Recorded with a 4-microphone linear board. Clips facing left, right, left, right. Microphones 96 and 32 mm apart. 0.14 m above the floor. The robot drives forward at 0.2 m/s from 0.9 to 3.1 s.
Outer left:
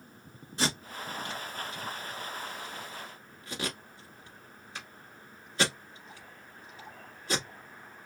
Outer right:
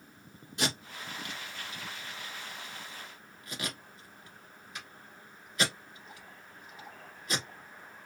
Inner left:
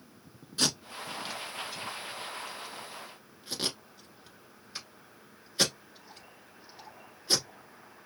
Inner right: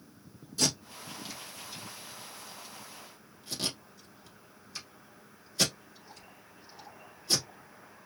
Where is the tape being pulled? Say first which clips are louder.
Outer left 2 dB, inner left 1 dB; 35° left (ahead or behind), 1.2 m; by 7.5 s 30° left (ahead or behind), 1.4 m.